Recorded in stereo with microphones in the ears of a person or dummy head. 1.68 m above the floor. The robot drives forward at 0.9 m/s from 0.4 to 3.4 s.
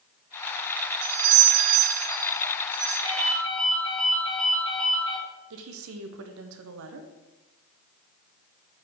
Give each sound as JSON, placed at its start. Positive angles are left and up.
{"t": 1.0, "sound": "a doorbell", "side_deg": -30, "distance_m": 0.8}
{"t": 3.0, "sound": "a ringtone", "side_deg": 80, "distance_m": 3.0}
{"t": 5.5, "sound": "a woman speaking", "side_deg": -75, "distance_m": 0.9}